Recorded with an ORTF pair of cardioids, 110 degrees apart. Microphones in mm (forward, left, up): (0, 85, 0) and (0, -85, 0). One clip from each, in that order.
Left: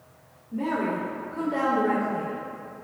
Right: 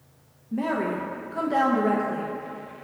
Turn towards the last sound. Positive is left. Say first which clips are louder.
# right 1 dB
turn(degrees=-70)